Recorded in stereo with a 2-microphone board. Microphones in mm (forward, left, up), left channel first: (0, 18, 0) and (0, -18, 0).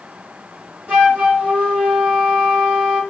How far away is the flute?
About 2.0 m.